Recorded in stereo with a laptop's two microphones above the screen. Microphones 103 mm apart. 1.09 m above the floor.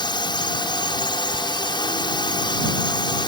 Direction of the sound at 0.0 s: 50° left (ahead or behind).